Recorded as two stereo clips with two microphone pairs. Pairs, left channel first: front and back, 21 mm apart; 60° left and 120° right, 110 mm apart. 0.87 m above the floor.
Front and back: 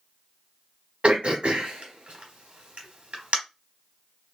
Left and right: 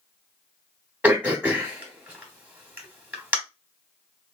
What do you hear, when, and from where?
1.0 s throat clearing: 170° left, 0.9 m